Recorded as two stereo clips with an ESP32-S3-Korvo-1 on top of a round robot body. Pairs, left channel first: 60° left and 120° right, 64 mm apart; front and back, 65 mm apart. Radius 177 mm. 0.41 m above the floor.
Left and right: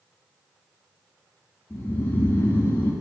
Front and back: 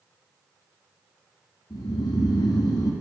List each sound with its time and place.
1.7 s snoring: straight ahead, 1.2 m